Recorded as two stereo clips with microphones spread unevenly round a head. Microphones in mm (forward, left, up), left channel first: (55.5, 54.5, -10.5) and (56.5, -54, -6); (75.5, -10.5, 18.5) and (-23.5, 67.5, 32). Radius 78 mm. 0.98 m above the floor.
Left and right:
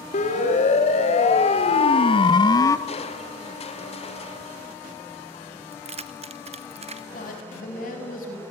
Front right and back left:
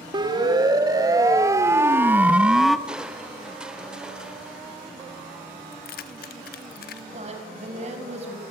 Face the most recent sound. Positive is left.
turn(degrees=105)